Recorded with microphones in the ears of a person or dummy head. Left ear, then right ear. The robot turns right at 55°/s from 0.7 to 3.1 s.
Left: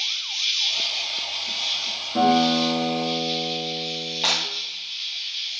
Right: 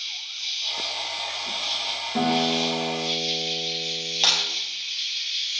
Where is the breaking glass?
30° right (ahead or behind), 2.5 m.